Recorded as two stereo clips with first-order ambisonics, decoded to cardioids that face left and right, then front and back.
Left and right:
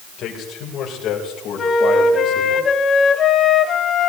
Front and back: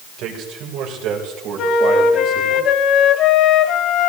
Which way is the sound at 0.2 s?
145° left.